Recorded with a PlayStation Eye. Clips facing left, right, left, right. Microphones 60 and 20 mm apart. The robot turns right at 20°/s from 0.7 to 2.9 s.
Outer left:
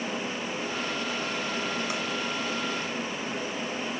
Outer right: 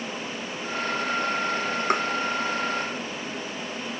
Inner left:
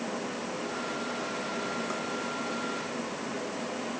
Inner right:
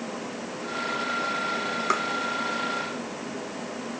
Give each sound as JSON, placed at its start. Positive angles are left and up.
{"t": 1.9, "sound": "tapping", "side_deg": -55}